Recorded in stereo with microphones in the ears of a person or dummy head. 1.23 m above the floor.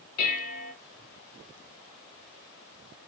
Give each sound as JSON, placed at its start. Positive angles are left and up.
{"t": 0.2, "sound": "dishes clattering", "side_deg": 55, "distance_m": 1.2}